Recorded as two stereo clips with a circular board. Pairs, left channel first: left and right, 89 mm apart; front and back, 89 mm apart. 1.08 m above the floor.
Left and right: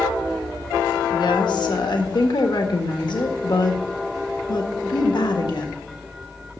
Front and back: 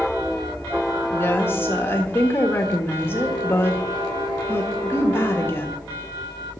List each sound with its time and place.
1.1 s a woman speaking: 60° left, 1.5 m